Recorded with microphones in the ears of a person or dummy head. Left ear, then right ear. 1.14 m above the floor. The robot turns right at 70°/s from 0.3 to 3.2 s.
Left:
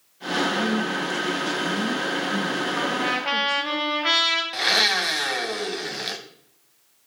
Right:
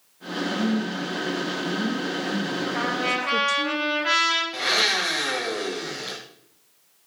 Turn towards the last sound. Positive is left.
turn(degrees=35)  # may be behind; listen again after turning